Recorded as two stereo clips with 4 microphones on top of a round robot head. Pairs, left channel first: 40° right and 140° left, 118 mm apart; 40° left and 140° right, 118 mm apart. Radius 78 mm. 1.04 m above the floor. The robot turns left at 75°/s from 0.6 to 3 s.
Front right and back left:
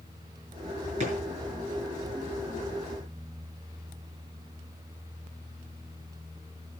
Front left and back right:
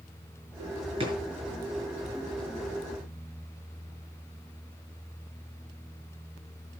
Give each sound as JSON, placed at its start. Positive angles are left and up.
{"t": 1.0, "sound": "a drawer", "azimuth_deg": 175, "distance_m": 6.0}